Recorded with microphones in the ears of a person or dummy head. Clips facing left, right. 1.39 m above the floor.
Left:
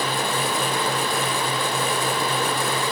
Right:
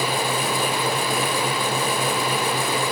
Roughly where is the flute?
I don't hear a flute.